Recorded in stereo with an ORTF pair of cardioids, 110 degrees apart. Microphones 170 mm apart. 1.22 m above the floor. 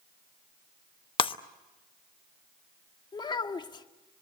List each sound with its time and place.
1.2 s breaking glass: 30° left, 0.9 m
3.1 s a child speaking: 25° left, 1.9 m